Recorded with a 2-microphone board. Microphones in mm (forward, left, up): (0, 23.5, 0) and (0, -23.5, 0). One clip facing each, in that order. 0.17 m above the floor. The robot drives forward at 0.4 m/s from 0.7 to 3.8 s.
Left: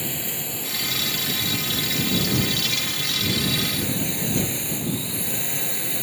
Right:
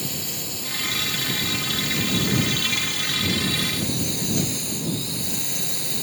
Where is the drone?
25° left (ahead or behind).